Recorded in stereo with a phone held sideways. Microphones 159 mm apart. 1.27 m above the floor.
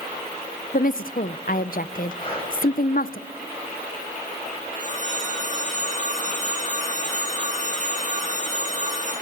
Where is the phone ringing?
50° right (ahead or behind), 9.5 m.